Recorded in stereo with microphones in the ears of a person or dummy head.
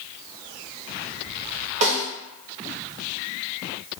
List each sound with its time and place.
1.8 s a snare drum: 30° right (ahead or behind), 0.7 m